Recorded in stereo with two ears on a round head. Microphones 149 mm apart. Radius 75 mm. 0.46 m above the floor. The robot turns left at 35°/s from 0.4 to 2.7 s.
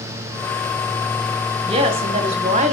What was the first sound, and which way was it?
A woman speaking, 50° right.